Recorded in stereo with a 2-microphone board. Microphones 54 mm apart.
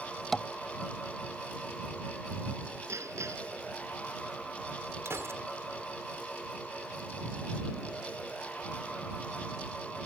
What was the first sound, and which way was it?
Tapping, 5° left (ahead or behind).